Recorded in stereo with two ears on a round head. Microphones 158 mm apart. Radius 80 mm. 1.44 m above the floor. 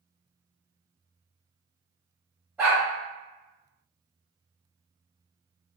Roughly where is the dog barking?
Centre.